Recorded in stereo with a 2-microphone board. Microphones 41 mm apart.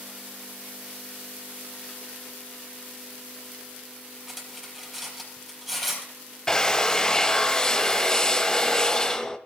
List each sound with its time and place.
4.3 s cutlery clinking: centre (ahead or behind), 4.5 m
6.5 s a drill: 20° left (ahead or behind), 0.9 m